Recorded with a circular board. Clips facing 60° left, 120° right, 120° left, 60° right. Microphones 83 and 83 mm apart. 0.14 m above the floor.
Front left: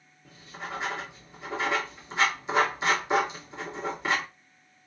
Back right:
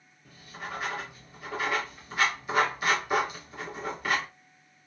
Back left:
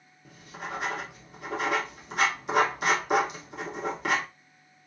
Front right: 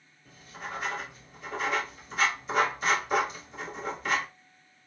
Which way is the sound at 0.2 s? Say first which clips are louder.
Front left 1 dB, back left 2 dB; 125° left.